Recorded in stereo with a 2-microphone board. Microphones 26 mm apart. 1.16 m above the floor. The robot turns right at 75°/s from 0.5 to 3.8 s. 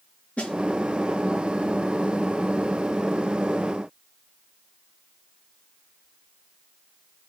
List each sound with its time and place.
0.4 s a snare drum: 60° left (ahead or behind), 3.5 m